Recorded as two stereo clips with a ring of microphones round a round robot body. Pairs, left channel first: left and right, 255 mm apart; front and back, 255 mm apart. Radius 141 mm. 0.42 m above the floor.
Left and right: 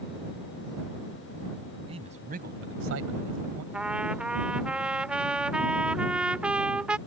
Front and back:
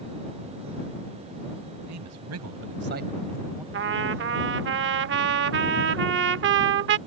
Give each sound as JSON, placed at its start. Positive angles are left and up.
{"t": 1.9, "sound": "a man speaking", "azimuth_deg": -160}
{"t": 3.7, "sound": "a trumpet", "azimuth_deg": -175}